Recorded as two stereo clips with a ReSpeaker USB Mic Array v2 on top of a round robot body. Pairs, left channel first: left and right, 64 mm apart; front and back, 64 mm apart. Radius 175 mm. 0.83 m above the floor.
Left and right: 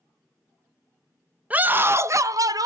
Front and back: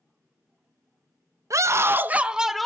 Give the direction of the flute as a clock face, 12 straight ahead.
No flute in this recording.